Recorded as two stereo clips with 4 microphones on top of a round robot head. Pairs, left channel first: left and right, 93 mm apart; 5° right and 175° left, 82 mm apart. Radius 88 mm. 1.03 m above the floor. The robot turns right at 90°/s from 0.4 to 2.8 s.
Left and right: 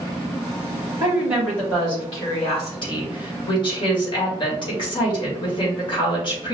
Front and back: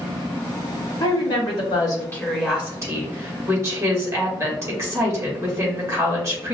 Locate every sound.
1.0 s a woman speaking: 40° right, 2.5 m; by 6.5 s 125° left, 2.5 m